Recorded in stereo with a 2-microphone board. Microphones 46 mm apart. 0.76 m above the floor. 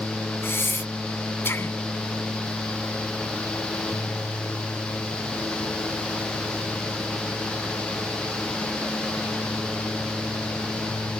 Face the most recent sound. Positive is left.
turn(degrees=55)  # may be behind; listen again after turning